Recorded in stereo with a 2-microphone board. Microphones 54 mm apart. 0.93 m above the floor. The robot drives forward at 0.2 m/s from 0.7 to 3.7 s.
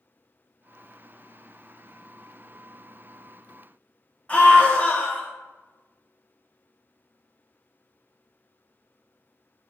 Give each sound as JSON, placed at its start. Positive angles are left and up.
{"t": 4.3, "sound": "a scream", "side_deg": 20, "distance_m": 0.8}